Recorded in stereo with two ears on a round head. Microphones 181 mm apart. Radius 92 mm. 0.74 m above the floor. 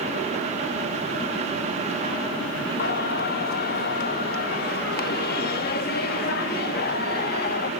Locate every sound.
2.8 s singing: 50° left (ahead or behind), 1.2 m